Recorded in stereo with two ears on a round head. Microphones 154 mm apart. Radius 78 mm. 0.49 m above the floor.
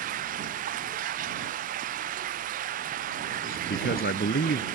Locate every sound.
0.0 s running water: 50° right (ahead or behind)
3.4 s a man speaking: 55° left (ahead or behind)